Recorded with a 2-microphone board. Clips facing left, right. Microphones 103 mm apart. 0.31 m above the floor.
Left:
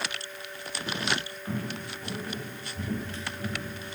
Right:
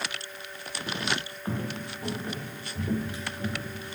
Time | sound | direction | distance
1.4 | footsteps | 35° right (ahead or behind) | 3.5 m